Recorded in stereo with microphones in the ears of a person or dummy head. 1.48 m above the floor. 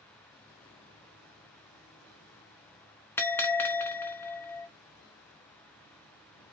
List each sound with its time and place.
3.2 s a bell: 10° left (ahead or behind), 0.6 m